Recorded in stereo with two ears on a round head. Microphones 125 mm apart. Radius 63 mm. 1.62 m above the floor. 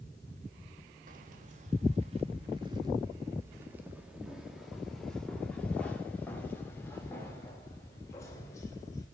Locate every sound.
1.1 s keys jangling: 55° right (ahead or behind), 1.6 m; by 9.1 s 25° left (ahead or behind), 4 m